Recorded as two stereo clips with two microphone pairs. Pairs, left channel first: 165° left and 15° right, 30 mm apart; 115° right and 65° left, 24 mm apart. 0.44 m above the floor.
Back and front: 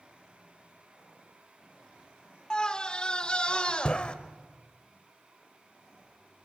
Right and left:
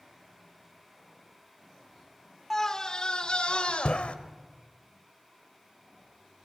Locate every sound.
2.5 s a scream: 165° right, 0.8 m; by 4.2 s 140° right, 1.6 m